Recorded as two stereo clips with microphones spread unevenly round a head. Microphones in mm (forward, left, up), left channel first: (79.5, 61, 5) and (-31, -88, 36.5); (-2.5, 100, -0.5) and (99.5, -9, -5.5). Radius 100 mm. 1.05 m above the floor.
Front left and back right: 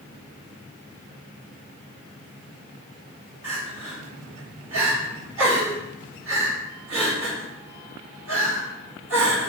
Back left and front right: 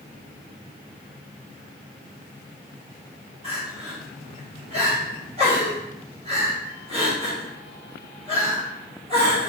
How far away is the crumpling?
I don't hear crumpling.